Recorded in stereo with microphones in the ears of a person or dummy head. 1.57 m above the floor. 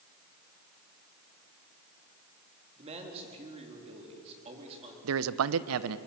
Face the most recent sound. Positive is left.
turn(degrees=-75)  # may be behind; listen again after turning